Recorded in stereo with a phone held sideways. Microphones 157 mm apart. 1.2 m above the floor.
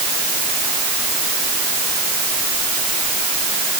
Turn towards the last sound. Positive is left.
No sound to turn to.